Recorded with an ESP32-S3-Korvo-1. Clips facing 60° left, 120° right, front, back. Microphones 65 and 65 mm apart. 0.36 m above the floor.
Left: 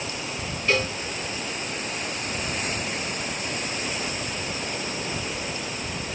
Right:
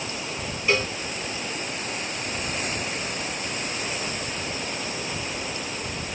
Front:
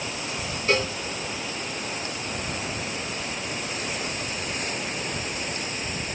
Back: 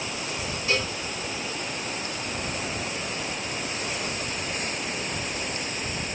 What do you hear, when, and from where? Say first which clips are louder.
0.7 s a cowbell: even, front 4 dB; 40° right, 0.8 m